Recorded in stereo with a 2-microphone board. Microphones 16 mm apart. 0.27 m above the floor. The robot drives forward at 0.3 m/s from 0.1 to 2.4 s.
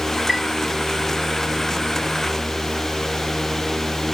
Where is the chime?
50° right (ahead or behind), 0.6 m.